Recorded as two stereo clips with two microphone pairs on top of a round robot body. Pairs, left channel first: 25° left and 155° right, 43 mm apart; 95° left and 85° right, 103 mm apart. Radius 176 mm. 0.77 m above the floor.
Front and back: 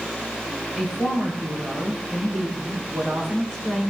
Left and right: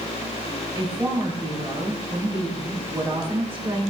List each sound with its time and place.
0.8 s a woman speaking: 20° right, 5.5 m